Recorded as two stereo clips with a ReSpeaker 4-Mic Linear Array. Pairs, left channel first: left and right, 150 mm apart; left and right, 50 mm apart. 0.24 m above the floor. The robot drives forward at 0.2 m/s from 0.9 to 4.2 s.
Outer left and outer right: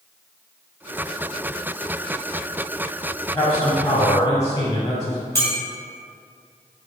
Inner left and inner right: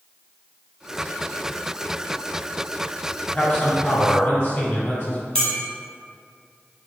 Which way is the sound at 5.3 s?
15° left (ahead or behind).